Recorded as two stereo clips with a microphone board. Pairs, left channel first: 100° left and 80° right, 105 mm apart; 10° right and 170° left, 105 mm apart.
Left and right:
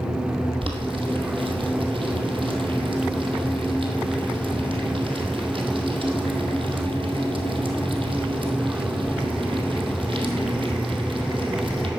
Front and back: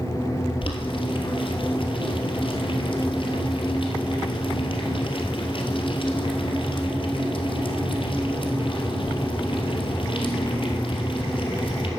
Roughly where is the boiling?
Ahead right.